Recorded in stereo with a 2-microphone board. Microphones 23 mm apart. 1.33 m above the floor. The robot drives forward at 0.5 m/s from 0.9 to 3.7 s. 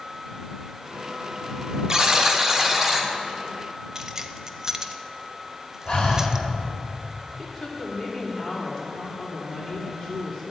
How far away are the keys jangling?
About 0.5 m.